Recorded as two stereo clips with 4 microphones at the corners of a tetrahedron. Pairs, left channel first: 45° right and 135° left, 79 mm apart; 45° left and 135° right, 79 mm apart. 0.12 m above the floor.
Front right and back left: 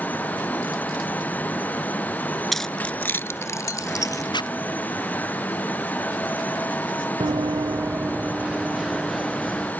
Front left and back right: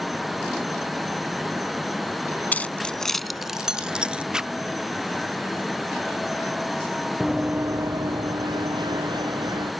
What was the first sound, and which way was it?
Keys jangling, 45° left.